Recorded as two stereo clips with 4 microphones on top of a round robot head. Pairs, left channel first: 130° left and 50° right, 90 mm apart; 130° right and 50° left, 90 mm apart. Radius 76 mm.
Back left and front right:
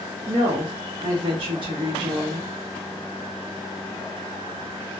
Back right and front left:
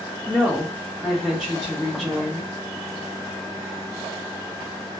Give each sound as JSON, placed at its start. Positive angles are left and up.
{"t": 0.3, "sound": "a woman speaking", "azimuth_deg": -35, "distance_m": 0.9}